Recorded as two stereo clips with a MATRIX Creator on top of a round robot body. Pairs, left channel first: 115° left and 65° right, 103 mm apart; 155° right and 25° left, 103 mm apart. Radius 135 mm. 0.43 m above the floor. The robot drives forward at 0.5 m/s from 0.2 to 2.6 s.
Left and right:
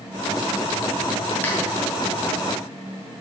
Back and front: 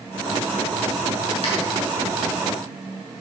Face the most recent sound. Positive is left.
turn(degrees=-175)